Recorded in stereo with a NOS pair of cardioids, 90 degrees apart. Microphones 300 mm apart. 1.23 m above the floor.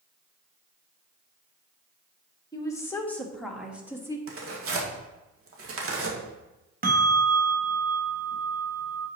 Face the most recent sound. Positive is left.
turn(degrees=-30)